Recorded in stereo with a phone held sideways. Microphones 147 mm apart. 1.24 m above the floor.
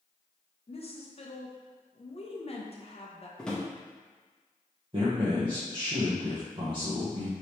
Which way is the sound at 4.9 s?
35° right (ahead or behind).